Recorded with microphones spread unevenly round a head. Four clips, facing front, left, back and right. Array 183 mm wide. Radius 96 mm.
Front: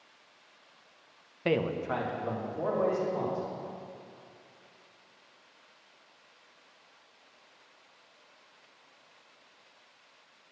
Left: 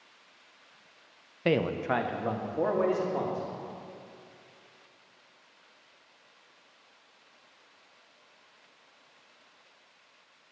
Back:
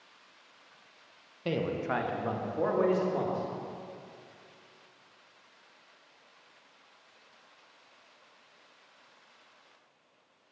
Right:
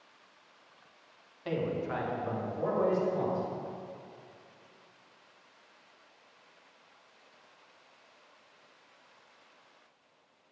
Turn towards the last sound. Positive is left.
turn(degrees=125)